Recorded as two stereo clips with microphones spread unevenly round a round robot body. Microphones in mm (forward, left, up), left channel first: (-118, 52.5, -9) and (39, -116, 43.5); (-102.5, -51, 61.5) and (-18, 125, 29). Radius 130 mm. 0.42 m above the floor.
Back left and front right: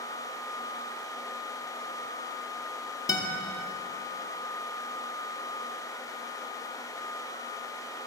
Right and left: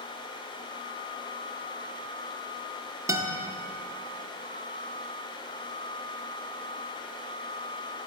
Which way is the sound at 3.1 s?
105° left.